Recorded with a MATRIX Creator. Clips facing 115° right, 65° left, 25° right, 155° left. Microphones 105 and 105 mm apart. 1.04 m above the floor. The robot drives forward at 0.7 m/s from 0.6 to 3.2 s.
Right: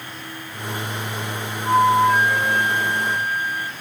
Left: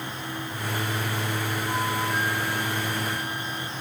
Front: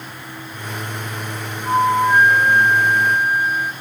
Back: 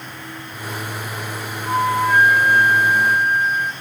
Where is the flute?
95° right; by 3.7 s 115° right.